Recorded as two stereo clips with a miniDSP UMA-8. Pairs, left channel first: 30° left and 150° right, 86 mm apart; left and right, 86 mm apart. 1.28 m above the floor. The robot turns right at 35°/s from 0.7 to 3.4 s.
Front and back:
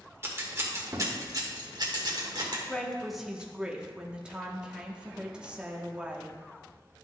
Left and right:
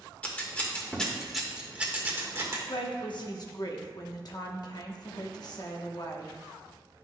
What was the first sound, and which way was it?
Scissors, 160° left.